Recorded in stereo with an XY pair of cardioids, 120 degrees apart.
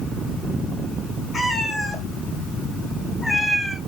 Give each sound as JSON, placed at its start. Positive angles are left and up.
{"t": 1.3, "sound": "a cat meowing", "azimuth_deg": 20, "distance_m": 3.5}